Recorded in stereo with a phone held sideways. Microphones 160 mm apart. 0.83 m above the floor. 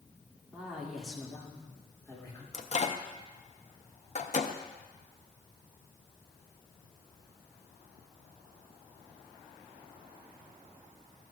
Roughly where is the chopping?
No chopping in this recording.